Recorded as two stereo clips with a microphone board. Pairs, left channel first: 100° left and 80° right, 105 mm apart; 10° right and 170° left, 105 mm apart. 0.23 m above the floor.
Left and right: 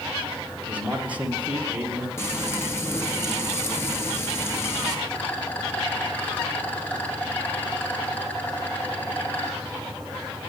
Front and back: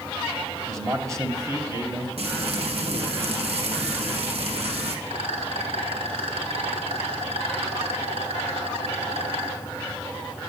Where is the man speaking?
150° right, 1.7 m.